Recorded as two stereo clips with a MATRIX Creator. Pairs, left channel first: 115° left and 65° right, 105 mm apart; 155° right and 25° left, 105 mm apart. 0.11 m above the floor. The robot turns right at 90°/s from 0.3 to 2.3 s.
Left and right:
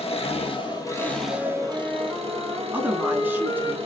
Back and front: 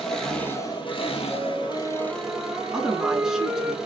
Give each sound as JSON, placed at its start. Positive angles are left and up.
{"t": 0.0, "sound": "an engine running", "azimuth_deg": 115, "distance_m": 1.5}
{"t": 1.3, "sound": "a flute", "azimuth_deg": -15, "distance_m": 1.3}
{"t": 2.7, "sound": "a woman speaking", "azimuth_deg": -55, "distance_m": 1.0}